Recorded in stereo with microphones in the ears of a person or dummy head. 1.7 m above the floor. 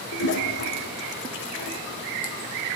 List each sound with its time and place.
0.1 s a toilet flushing: 60° left (ahead or behind), 0.9 m